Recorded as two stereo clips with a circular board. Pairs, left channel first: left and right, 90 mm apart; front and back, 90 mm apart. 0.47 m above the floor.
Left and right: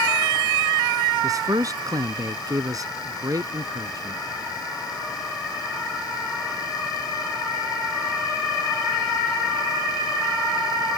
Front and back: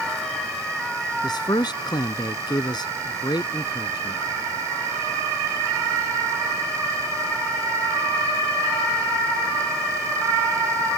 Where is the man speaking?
40° right.